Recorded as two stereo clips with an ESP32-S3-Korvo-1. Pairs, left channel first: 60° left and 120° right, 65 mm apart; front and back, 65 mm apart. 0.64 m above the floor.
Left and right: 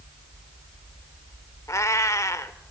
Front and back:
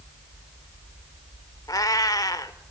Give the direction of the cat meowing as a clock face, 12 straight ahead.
11 o'clock.